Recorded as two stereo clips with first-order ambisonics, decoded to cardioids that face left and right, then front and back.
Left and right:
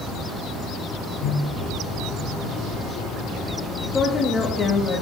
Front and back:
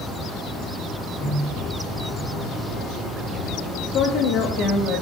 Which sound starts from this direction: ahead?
A woman speaking, at 3.9 s.